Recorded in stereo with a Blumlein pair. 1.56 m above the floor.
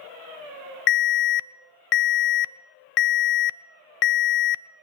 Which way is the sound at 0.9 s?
40° left.